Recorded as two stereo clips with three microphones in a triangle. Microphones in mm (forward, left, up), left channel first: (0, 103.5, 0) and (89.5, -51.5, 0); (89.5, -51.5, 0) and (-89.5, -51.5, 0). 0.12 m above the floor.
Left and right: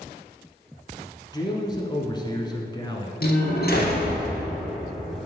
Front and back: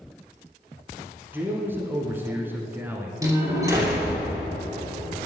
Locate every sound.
1.3 s a man speaking: 120° left, 1.1 m
3.2 s a door slam: 110° left, 2.5 m